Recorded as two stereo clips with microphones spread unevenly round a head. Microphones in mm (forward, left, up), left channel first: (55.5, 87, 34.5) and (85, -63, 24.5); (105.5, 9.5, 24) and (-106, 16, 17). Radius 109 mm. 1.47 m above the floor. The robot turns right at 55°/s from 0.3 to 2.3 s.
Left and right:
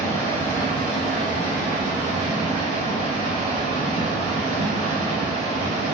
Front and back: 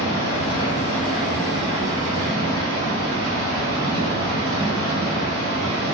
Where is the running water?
40° left, 1.2 m; by 6.0 s 150° left, 1.2 m.